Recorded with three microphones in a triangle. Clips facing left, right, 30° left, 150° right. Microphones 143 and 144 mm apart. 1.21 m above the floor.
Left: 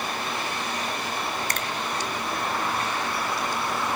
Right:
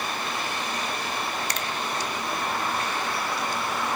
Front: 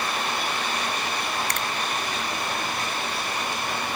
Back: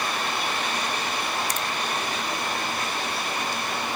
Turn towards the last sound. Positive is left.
turn(degrees=55)